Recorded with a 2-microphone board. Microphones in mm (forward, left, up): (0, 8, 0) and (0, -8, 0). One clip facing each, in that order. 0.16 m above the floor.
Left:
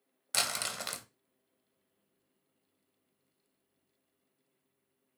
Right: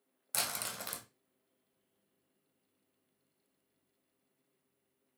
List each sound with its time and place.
0.3 s crumpling: 30° left (ahead or behind), 0.6 m